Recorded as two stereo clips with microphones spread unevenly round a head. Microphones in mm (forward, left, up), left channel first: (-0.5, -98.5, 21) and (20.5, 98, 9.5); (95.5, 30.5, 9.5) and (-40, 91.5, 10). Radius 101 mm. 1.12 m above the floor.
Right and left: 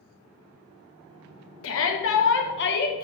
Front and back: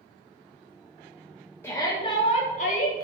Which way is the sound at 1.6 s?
100° right.